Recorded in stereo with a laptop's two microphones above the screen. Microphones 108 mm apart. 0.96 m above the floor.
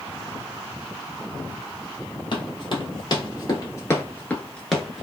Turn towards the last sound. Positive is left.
turn(degrees=-10)  # may be behind; listen again after turning